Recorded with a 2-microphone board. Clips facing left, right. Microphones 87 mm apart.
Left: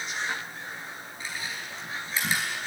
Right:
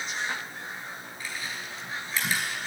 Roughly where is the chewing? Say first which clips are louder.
Left 1 dB; left.